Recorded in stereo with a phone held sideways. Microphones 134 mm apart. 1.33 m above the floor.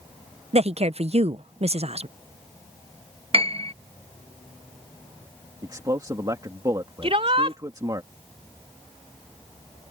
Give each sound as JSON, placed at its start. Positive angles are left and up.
{"t": 0.5, "sound": "a woman speaking", "side_deg": -50}
{"t": 3.3, "sound": "a piano", "side_deg": -45}
{"t": 5.6, "sound": "a man speaking", "side_deg": -30}
{"t": 7.0, "sound": "a shout", "side_deg": -45}